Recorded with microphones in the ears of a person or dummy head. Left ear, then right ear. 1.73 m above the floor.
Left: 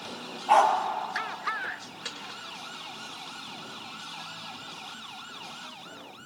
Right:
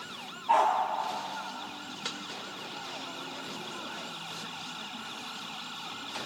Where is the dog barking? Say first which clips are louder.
Left 4 dB; 25° left (ahead or behind), 1.7 m.